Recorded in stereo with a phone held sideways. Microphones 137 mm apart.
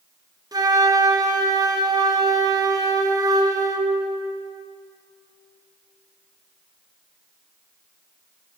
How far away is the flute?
About 0.7 m.